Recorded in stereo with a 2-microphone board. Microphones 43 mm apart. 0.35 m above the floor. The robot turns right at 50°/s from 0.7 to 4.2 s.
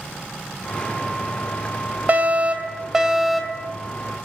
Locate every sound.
2.1 s a fire alarm: 65° right, 2.5 m; by 3.7 s 15° left, 2.5 m